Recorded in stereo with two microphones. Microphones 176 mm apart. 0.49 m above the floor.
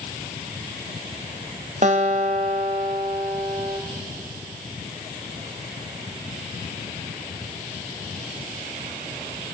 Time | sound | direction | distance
1.8 | a guitar | 45° right (ahead or behind) | 3 m